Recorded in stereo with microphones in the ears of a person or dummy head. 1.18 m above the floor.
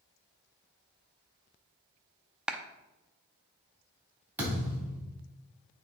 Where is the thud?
10° right (ahead or behind), 3.5 m.